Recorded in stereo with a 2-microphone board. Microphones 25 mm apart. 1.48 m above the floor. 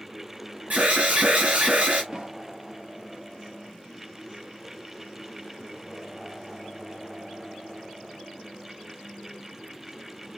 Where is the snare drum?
35° right (ahead or behind), 2.0 m.